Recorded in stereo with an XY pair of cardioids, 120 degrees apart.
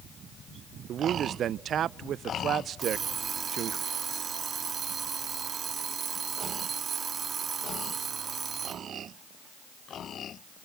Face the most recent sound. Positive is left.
turn(degrees=-35)